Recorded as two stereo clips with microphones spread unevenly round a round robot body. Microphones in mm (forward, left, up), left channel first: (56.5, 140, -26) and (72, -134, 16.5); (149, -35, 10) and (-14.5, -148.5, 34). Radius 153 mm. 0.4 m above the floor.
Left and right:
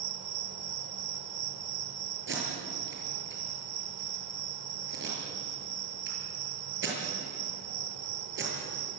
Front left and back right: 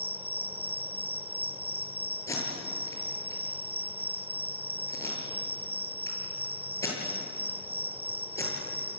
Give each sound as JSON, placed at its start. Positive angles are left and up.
{"t": 0.0, "sound": "an insect", "azimuth_deg": -85, "distance_m": 1.5}
{"t": 2.3, "sound": "tape being pulled", "azimuth_deg": -40, "distance_m": 8.5}